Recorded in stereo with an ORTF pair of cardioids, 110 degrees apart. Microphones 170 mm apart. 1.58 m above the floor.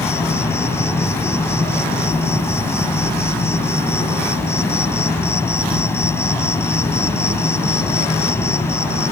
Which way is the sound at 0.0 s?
15° left.